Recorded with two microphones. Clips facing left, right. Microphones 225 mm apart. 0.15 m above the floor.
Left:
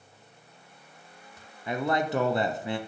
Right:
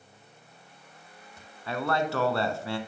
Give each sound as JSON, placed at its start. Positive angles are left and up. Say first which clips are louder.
{"t": 1.7, "sound": "a man speaking", "louder": "left 1 dB", "side_deg": 20, "distance_m": 1.3}